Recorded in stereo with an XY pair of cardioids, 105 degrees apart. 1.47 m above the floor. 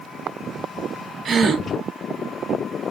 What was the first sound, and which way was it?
A gasp, 45° right.